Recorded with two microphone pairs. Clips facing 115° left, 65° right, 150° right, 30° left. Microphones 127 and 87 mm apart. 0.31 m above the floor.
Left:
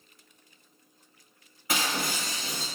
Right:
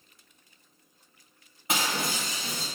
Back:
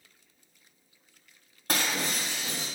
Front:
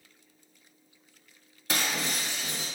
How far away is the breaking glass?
About 1.3 m.